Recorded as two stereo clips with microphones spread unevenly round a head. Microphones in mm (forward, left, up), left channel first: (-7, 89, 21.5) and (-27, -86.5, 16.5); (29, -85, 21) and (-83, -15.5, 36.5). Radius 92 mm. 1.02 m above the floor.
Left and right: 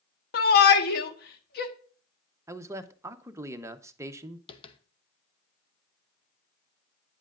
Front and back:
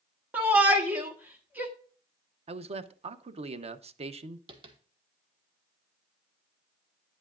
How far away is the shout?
About 1.2 m.